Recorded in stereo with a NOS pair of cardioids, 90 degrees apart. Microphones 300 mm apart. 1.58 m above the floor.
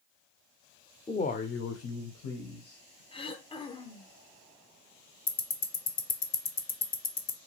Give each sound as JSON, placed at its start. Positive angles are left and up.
{"t": 1.1, "sound": "a man speaking", "azimuth_deg": 15, "distance_m": 0.5}
{"t": 3.1, "sound": "throat clearing", "azimuth_deg": 20, "distance_m": 0.7}
{"t": 5.3, "sound": "ticking", "azimuth_deg": 30, "distance_m": 0.6}